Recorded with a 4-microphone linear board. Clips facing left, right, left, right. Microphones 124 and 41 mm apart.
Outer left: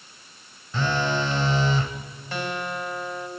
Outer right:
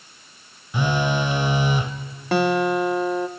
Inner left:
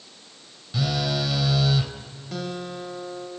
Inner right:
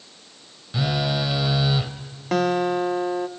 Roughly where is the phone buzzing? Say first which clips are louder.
Outer right 2 dB, inner right 2 dB; centre.